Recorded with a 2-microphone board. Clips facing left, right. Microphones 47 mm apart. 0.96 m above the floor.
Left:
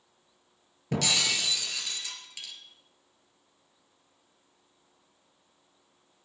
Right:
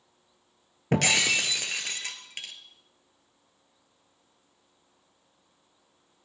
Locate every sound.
0.9 s breaking glass: 45° right (ahead or behind), 1.6 m